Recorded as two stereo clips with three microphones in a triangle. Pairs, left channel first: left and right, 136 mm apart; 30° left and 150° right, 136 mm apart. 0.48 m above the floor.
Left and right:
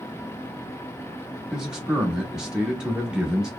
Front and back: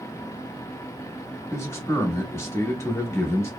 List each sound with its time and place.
1.5 s a man speaking: 10° right, 0.8 m